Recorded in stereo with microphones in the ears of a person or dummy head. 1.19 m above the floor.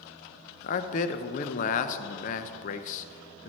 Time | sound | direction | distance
0.6 | a man speaking | 45° left (ahead or behind) | 0.7 m